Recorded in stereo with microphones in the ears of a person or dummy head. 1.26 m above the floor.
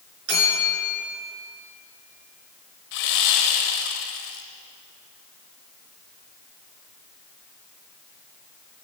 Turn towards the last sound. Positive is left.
turn(degrees=60)  # may be behind; listen again after turning